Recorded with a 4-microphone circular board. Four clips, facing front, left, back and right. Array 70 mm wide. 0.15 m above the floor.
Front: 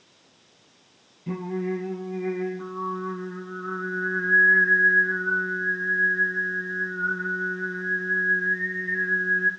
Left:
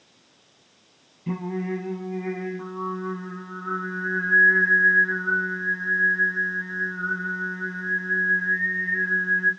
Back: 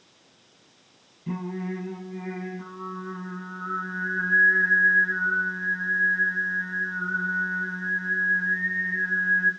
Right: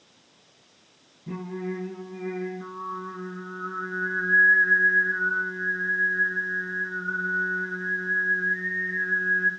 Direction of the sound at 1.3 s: 85° left.